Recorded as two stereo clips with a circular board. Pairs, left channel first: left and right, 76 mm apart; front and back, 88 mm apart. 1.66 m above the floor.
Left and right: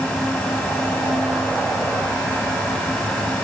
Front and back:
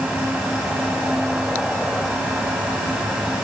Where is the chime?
No chime in this recording.